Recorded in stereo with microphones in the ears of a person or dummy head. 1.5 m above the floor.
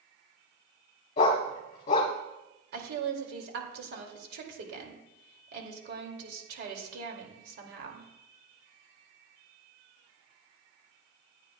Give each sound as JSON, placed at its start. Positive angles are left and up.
{"t": 1.2, "sound": "a dog barking", "side_deg": 30, "distance_m": 1.2}
{"t": 2.7, "sound": "a woman speaking", "side_deg": -55, "distance_m": 2.5}